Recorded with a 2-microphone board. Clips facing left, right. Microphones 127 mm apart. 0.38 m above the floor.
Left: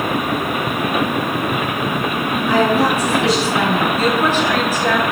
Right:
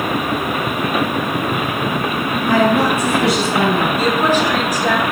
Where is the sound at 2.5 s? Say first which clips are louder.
Right 1 dB; 75° right (ahead or behind), 4 m.